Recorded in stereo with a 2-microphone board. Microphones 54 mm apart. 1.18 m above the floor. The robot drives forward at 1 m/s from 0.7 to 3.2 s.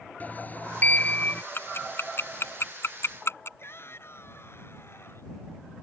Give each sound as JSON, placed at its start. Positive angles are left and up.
{"t": 0.2, "sound": "a sliding door", "side_deg": 30}
{"t": 1.6, "sound": "ticking", "side_deg": 45}
{"t": 3.6, "sound": "a shout", "side_deg": 50}